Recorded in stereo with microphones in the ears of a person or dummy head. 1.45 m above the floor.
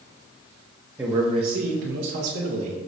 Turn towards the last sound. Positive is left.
turn(degrees=-85)